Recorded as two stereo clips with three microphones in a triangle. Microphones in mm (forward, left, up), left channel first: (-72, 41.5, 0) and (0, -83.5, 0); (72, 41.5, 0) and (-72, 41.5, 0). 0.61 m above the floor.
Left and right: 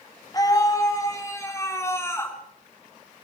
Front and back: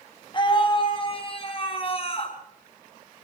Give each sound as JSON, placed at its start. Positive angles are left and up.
{"t": 0.3, "sound": "a scream", "azimuth_deg": 55, "distance_m": 6.0}